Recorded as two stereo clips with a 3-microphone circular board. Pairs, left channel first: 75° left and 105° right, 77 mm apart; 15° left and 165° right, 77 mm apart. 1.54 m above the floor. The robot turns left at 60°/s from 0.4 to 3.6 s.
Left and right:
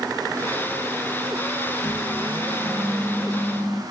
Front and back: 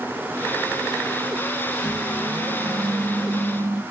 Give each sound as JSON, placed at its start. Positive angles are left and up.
{"t": 1.8, "sound": "a microwave", "azimuth_deg": -90, "distance_m": 1.5}